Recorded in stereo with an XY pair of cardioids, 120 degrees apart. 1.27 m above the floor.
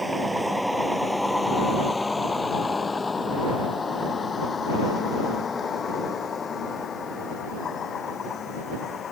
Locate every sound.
0.0 s a vehicle: 10° right; by 9.1 s 40° left